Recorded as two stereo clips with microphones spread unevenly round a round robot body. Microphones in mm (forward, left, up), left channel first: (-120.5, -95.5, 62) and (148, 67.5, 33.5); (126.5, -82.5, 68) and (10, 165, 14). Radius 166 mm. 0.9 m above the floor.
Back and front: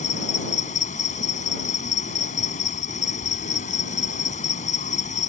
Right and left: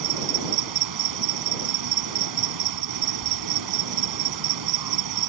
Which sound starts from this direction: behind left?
An insect, at 0.0 s.